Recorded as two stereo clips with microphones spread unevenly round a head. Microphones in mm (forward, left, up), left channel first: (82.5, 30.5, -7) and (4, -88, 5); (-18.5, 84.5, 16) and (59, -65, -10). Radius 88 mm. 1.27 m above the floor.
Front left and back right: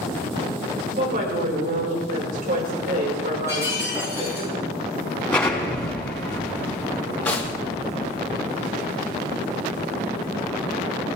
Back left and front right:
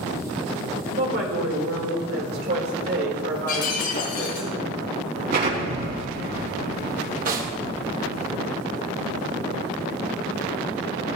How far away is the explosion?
About 4.5 m.